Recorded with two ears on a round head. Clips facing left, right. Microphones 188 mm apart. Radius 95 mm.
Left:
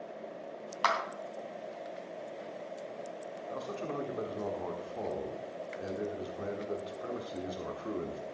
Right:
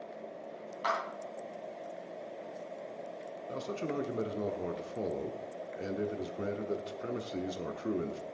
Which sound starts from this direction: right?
A man speaking, at 3.5 s.